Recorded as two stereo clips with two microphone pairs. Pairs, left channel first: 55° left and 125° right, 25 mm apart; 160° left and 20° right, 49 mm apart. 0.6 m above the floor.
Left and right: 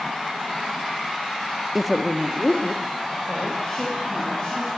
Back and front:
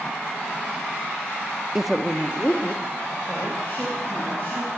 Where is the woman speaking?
65° right, 0.6 m; by 4.7 s 105° left, 4.5 m.